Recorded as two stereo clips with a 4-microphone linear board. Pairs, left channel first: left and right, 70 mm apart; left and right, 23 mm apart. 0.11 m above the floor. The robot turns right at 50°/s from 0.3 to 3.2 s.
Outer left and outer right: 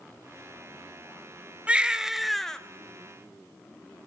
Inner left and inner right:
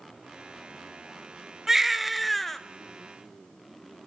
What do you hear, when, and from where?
1.7 s a baby crying: 30° right, 0.7 m; by 2.6 s 15° left, 0.7 m